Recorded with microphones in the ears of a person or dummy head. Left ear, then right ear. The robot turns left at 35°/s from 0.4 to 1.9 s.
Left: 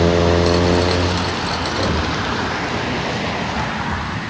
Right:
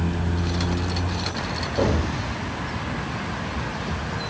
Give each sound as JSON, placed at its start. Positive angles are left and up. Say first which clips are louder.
{"t": 1.8, "sound": "an explosion", "louder": "left 5 dB", "side_deg": -45, "distance_m": 2.5}